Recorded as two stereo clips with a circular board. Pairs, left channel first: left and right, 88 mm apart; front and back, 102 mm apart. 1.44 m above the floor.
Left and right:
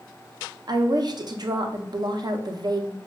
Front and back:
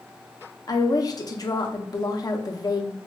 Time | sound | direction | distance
0.7 | a woman speaking | 50° right | 0.5 m